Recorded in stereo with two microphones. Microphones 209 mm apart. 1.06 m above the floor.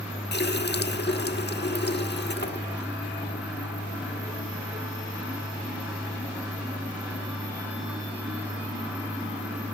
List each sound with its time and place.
0.3 s a running tap: 55° left (ahead or behind), 1.3 m